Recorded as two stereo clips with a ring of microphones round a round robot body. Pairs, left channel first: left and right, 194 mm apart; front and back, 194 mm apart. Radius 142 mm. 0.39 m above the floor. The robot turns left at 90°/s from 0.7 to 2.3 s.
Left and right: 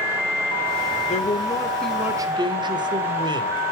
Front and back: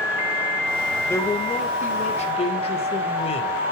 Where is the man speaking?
70° left, 1.3 m; by 3.7 s 40° right, 1.3 m.